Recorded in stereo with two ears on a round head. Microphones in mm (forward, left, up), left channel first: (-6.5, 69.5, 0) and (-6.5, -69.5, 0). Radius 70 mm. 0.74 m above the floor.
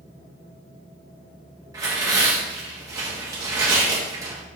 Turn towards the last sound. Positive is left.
turn(degrees=-25)  # may be behind; listen again after turning